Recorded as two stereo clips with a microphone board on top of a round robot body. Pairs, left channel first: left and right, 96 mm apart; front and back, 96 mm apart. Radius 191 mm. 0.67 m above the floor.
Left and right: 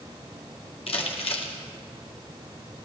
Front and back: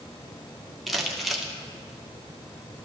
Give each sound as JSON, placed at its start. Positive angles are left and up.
{"t": 0.9, "sound": "crumpling", "azimuth_deg": 90, "distance_m": 2.0}